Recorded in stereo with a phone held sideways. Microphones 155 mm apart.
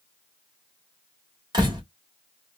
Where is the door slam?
25° right (ahead or behind), 1.6 m.